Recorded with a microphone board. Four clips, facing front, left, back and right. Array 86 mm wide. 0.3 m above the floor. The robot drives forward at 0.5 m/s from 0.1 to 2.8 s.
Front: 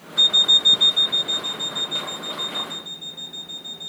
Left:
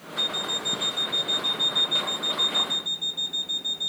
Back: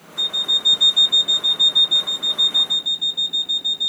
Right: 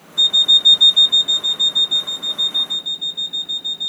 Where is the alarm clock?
60° right, 0.6 m; by 3.9 s 160° right, 1.2 m.